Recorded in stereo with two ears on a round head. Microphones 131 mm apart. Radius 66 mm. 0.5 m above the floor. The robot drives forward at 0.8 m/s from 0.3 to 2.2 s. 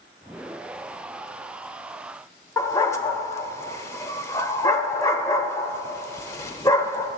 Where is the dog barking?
20° left (ahead or behind), 0.7 m.